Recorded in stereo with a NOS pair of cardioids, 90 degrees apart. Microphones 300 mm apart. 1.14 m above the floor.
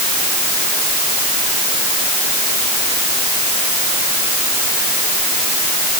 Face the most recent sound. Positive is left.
No sound to turn to.